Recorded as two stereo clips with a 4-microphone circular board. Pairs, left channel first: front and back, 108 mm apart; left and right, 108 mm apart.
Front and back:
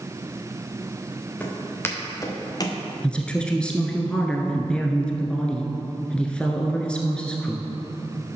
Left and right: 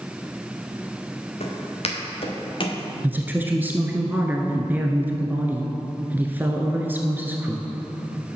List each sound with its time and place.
1.4 s footsteps: 75° left, 2.5 m; by 2.8 s 50° left, 1.9 m
3.0 s a woman speaking: 60° right, 1.1 m